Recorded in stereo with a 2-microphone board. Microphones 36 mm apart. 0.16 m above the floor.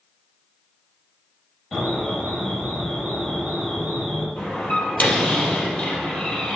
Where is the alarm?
15° left (ahead or behind), 4 m.